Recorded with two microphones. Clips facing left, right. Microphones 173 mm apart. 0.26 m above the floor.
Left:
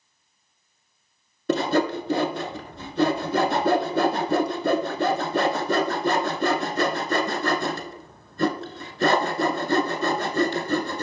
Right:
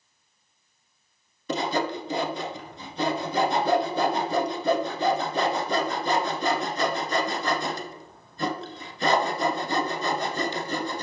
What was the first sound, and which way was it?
Sawing, 65° left (ahead or behind).